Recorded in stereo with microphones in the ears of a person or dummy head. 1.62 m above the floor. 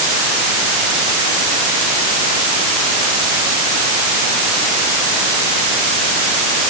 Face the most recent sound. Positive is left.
No sound to turn to.